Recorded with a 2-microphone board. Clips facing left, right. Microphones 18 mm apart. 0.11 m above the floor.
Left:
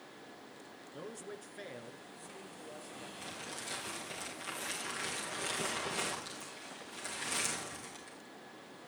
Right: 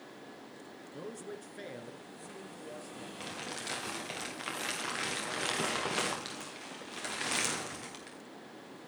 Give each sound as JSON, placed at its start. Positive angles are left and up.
{"t": 0.9, "sound": "a man speaking", "side_deg": 5, "distance_m": 1.2}
{"t": 3.2, "sound": "crumpling", "side_deg": -40, "distance_m": 5.0}